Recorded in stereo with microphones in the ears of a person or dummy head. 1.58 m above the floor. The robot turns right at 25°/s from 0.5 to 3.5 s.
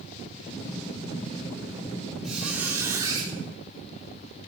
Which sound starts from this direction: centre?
A squeak, at 2.2 s.